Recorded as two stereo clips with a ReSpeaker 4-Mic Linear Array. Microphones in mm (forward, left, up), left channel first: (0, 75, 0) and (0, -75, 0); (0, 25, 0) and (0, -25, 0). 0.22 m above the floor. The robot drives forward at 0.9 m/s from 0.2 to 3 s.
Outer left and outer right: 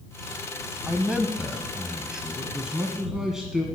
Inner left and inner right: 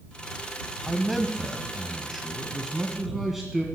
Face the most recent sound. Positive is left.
turn(degrees=-5)  # may be behind; listen again after turning